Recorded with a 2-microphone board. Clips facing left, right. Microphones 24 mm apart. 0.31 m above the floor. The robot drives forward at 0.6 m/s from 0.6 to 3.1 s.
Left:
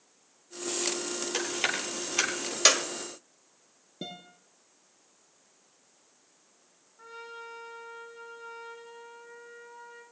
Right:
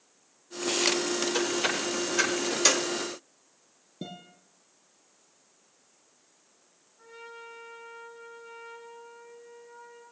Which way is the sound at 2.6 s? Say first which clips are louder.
Left 2 dB; 30° left (ahead or behind).